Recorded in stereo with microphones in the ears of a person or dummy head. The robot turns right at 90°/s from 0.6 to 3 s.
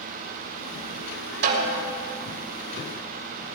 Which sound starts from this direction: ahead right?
A snare drum, at 1.4 s.